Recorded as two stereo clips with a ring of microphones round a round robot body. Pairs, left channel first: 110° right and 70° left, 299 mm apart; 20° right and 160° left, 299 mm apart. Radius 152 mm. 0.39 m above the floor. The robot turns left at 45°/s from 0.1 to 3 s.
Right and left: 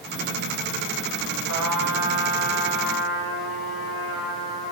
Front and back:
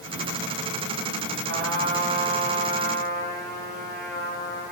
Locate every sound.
1.5 s a trumpet: 100° left, 1.2 m; by 4.7 s 35° left, 1.2 m